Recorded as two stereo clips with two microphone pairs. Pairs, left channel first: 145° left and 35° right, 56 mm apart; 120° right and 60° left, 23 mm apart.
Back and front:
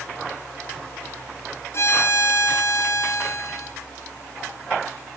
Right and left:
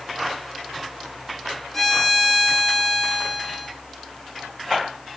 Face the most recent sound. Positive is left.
turn(degrees=165)